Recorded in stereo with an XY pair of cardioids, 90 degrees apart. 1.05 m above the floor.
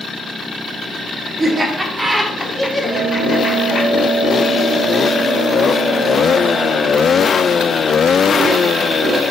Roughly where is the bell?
Ahead left.